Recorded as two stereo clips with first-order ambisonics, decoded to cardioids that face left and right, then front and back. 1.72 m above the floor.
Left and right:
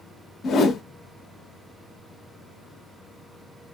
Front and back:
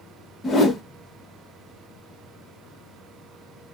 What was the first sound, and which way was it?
A whoosh, 65° left.